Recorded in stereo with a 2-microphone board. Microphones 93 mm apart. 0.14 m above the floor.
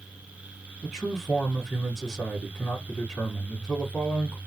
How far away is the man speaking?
About 1.8 m.